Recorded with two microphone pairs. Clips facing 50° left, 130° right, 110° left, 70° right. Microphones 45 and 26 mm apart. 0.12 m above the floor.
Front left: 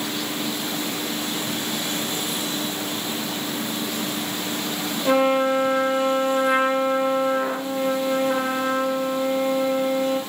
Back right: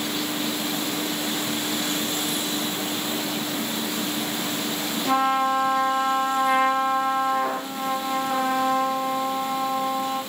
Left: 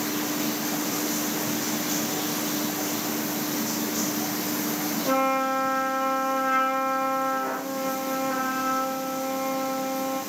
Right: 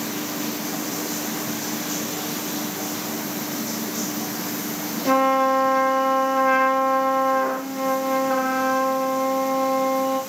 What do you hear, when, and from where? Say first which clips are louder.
5.0 s a trumpet: front left 3 dB, right 6 dB; 20° right, 3 m